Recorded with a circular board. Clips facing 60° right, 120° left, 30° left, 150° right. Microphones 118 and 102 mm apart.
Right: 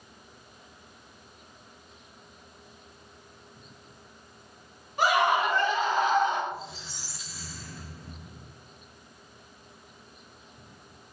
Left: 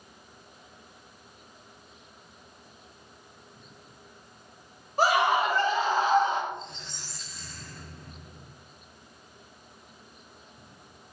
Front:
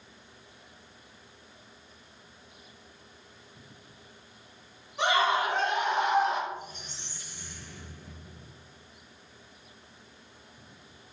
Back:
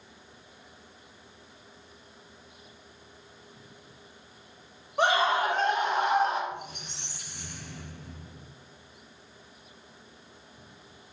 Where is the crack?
No crack in this recording.